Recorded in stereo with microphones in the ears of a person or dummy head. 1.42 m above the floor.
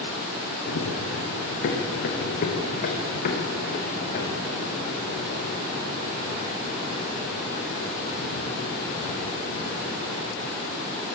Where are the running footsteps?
70° left (ahead or behind), 5 m; by 10.2 s 20° left (ahead or behind), 6 m.